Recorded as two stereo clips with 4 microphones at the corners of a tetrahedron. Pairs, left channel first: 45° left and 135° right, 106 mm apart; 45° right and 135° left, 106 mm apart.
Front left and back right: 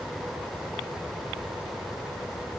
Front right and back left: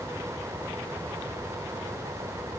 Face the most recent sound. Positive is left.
No sound to turn to.